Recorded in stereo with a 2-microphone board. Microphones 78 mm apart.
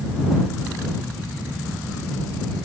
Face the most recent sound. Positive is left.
No sound to turn to.